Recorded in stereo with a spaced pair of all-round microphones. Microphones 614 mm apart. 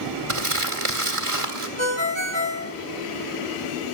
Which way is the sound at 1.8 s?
20° right (ahead or behind).